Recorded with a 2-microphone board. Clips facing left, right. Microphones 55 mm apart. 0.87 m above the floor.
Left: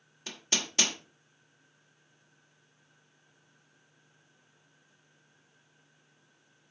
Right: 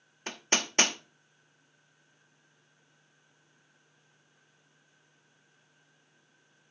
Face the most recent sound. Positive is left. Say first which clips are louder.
# right 4 dB
turn(degrees=-40)  # may be behind; listen again after turning